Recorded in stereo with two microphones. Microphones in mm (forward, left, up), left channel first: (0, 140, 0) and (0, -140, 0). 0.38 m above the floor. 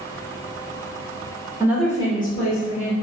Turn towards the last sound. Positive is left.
turn(degrees=55)  # may be behind; listen again after turning